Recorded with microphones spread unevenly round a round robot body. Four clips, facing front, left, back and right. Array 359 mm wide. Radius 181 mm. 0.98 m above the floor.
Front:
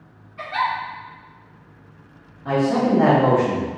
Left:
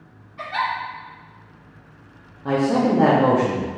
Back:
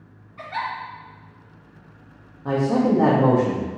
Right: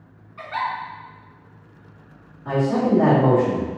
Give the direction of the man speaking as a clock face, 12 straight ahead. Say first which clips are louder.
Left 1 dB, front 1 dB; 8 o'clock.